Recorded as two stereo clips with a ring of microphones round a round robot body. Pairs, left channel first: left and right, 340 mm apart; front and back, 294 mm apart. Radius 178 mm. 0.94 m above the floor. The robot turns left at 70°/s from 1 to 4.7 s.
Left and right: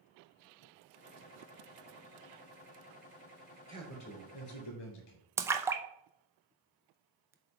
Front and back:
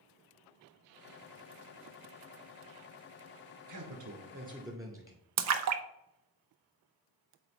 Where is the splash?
170° right, 0.6 m.